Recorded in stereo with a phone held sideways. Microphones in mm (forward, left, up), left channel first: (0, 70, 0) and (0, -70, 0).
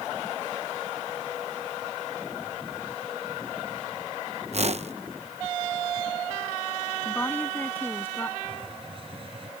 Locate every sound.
4.5 s a whoosh: 50° right (ahead or behind)
7.0 s a woman speaking: 15° left (ahead or behind)
8.4 s a hiss: 40° right (ahead or behind)